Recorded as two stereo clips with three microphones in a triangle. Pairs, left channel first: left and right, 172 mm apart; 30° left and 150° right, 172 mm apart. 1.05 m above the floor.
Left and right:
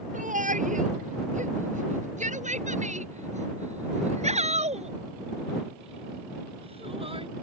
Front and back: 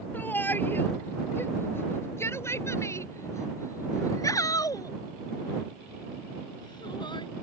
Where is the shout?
50° right; by 7.3 s 35° right.